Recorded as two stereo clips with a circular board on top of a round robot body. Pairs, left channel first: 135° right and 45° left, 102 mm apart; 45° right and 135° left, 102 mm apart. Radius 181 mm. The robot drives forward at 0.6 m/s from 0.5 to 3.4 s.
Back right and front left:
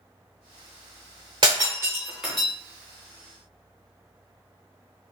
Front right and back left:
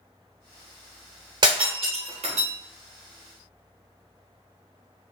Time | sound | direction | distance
1.4 | breaking glass | 85° left | 0.7 m